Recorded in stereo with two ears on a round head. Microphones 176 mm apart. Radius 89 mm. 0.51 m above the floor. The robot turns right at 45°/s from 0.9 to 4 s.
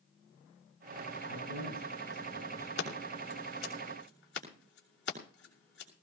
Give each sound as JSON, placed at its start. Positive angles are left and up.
{"t": 1.2, "sound": "a man speaking", "azimuth_deg": -75, "distance_m": 8.0}
{"t": 2.8, "sound": "scissors", "side_deg": 55, "distance_m": 6.5}